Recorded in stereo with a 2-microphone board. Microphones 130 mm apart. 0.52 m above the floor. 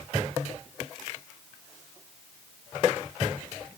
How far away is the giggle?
I don't hear a giggle.